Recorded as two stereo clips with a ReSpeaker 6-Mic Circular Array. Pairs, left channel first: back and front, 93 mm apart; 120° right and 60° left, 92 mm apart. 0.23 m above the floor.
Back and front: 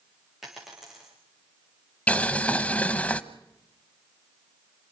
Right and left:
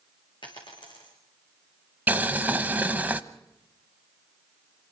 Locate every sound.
0.4 s a dropped coin: 85° right, 6.5 m
2.1 s boiling: 120° left, 0.9 m